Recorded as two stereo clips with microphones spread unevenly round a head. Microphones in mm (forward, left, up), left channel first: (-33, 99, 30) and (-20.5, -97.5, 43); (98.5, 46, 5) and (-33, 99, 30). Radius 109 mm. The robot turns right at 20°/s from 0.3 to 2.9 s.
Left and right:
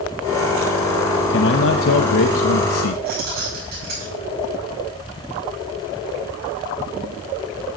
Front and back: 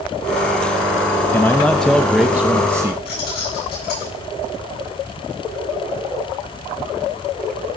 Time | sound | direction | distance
1.3 | a man speaking | 55° left | 0.9 m
3.0 | keys jangling | 40° right | 8 m